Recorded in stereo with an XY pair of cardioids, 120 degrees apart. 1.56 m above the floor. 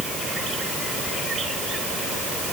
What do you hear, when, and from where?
Only background noise.